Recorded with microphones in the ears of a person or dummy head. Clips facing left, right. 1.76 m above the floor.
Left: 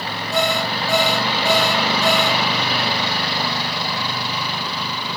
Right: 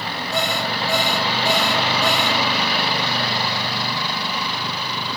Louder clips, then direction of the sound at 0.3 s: Left 4 dB; 80° left.